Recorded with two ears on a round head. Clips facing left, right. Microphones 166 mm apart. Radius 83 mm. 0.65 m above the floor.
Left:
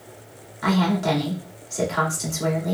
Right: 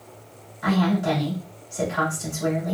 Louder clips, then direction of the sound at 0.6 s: Even; 70° left (ahead or behind).